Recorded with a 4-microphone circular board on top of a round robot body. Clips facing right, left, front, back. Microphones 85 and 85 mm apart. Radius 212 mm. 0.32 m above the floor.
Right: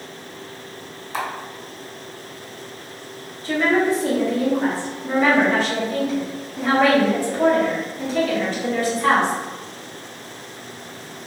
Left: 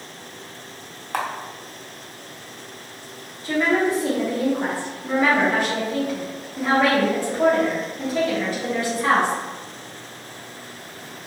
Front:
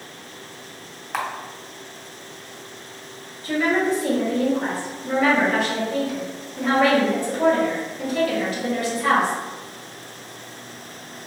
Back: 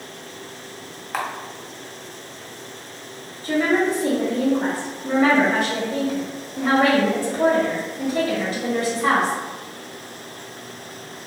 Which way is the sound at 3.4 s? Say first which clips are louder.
Right 1 dB, back 1 dB; 155° left.